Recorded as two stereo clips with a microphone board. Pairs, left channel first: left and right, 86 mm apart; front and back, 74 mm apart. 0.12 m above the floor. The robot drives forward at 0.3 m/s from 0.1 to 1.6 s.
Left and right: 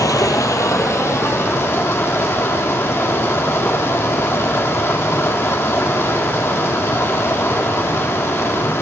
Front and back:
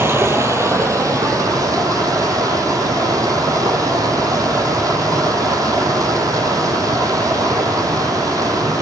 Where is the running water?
130° left, 0.7 m; by 8.8 s 150° left, 1.1 m.